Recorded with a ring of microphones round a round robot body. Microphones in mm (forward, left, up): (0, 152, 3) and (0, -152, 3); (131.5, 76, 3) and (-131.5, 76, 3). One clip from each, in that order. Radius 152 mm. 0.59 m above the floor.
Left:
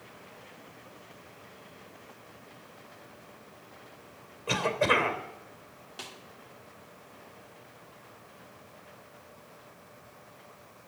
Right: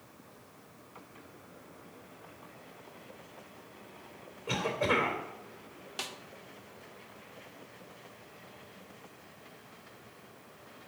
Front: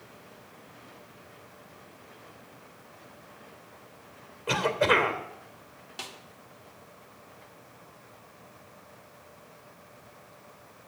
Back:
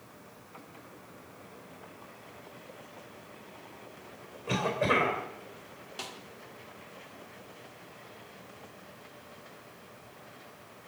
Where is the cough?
15° left, 3 m.